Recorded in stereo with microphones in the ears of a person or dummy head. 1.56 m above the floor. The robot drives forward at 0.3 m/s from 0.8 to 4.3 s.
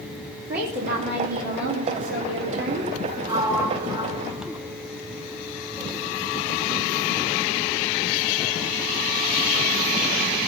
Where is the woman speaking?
50° right (ahead or behind), 3 m; by 2.9 s 60° right (ahead or behind), 2.5 m.